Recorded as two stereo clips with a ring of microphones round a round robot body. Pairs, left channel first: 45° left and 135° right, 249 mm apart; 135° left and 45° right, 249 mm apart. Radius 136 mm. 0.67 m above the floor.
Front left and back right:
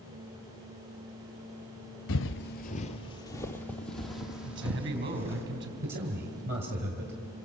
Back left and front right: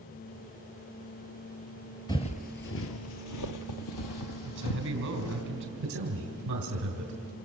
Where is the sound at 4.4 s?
90° right, 4.5 m.